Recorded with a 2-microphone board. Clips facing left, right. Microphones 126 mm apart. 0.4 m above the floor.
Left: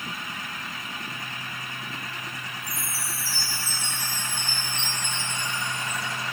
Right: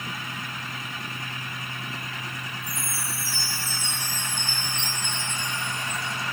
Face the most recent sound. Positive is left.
turn(degrees=20)  # may be behind; listen again after turning